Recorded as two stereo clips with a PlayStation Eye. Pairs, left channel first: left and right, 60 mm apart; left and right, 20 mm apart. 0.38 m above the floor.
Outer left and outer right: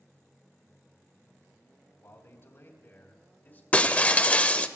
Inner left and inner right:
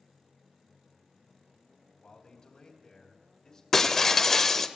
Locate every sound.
2.0 s a man speaking: 50° left (ahead or behind), 2.5 m; by 3.6 s 35° left (ahead or behind), 2 m
3.7 s breaking glass: 25° left (ahead or behind), 0.6 m